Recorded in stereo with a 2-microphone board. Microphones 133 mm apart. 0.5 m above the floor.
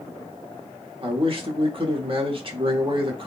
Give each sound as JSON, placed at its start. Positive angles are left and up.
{"t": 1.0, "sound": "a man speaking", "side_deg": -40, "distance_m": 1.0}